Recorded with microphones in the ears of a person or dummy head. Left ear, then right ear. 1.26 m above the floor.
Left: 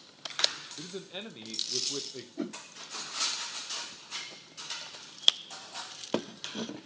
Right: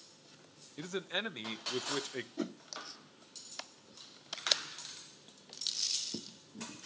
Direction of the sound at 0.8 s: 55° right (ahead or behind).